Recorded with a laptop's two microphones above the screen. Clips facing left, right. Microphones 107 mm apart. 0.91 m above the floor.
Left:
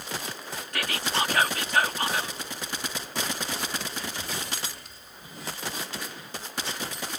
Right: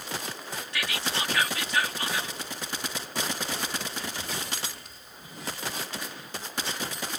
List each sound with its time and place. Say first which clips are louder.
0.7 s whispering: left 4 dB; 45° left (ahead or behind)